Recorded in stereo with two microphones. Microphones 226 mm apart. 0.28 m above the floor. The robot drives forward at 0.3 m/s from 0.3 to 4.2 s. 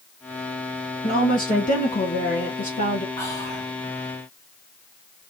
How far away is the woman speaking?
About 4 m.